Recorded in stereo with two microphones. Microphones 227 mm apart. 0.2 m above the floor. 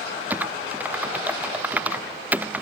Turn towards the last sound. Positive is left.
turn(degrees=-5)  # may be behind; listen again after turning